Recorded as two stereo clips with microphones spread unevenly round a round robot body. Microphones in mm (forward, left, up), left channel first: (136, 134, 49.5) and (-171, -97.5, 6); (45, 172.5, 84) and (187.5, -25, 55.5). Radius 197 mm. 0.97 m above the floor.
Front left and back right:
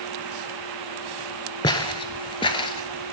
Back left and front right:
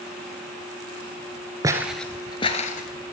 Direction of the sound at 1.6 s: 15° left.